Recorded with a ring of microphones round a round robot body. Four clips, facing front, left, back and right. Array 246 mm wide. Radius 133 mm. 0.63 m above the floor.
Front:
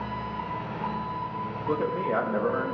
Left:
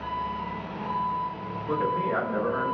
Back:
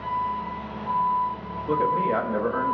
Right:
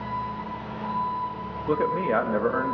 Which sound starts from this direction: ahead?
An engine running, at 0.0 s.